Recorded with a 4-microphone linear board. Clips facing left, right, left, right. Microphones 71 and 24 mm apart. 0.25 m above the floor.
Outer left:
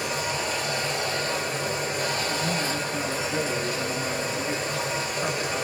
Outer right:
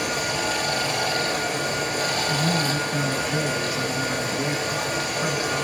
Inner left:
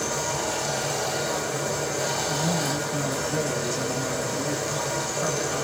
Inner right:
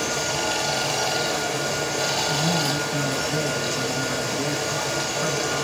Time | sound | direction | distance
0.0 | running water | 65° right (ahead or behind) | 1.2 m
2.3 | a man speaking | 10° right (ahead or behind) | 1.3 m